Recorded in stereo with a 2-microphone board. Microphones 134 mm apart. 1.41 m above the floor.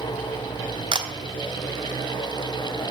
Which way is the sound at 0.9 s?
35° right (ahead or behind).